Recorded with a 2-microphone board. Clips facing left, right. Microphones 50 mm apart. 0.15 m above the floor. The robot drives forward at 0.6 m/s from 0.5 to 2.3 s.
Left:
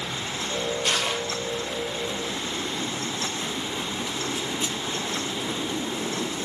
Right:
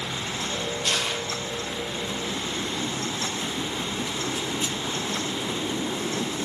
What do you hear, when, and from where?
0.8 s crushing: 20° left (ahead or behind), 3.5 m